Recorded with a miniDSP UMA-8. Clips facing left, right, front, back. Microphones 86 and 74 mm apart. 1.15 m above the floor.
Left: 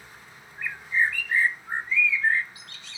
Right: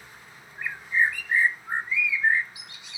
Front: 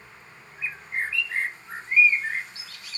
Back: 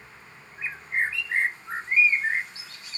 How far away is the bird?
About 0.7 m.